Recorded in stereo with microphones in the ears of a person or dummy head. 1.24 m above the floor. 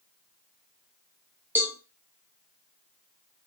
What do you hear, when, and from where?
1.6 s a cowbell: 10° right (ahead or behind), 1.4 m